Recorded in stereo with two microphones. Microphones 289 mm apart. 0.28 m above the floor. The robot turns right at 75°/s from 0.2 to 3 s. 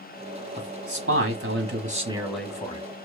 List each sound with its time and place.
0.6 s a man speaking: 135° right, 1.6 m; by 2.8 s 35° left, 1.6 m